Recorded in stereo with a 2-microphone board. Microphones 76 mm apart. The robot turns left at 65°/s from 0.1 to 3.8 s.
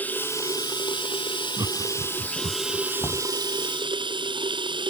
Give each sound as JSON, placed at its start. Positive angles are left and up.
{"t": 0.0, "sound": "running water", "azimuth_deg": 160}
{"t": 1.6, "sound": "laughter", "side_deg": -55}
{"t": 3.0, "sound": "knocking", "side_deg": 60}